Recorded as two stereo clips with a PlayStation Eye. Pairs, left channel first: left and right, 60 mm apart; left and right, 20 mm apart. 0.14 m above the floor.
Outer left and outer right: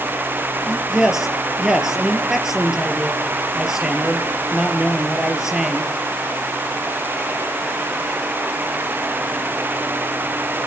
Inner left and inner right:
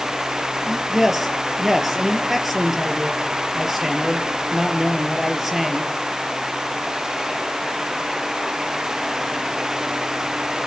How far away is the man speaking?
About 3.5 m.